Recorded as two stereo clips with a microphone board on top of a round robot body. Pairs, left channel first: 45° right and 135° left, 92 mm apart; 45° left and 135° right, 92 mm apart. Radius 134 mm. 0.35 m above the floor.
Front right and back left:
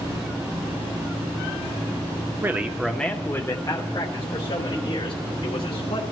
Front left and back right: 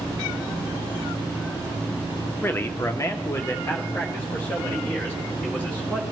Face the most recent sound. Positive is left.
turn(degrees=-25)